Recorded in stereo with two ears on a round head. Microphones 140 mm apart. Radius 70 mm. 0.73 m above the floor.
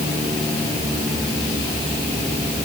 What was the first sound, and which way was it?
Only background noise.